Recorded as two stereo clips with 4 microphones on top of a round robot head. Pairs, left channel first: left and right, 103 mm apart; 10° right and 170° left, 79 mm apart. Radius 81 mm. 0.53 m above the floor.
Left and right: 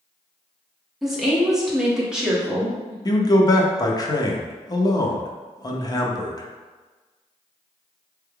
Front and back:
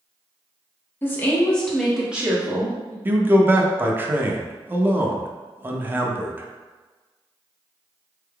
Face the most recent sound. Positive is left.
turn(degrees=120)